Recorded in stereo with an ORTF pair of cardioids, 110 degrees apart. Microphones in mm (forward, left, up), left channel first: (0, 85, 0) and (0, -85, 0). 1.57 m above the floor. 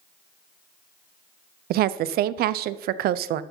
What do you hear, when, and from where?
1.7 s a woman speaking: 65° right, 0.5 m